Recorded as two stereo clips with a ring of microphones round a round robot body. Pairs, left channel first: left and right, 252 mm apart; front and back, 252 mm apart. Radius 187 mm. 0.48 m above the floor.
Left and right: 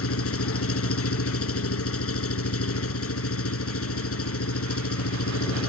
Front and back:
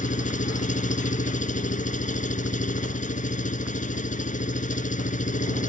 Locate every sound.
0.0 s an engine running: 60° left